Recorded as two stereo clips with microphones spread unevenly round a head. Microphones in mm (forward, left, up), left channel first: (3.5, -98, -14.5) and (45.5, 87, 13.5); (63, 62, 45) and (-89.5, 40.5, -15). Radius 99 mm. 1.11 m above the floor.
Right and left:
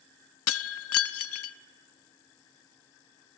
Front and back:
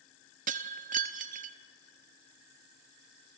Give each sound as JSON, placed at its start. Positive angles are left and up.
{"t": 0.5, "sound": "breaking glass", "azimuth_deg": -110, "distance_m": 0.7}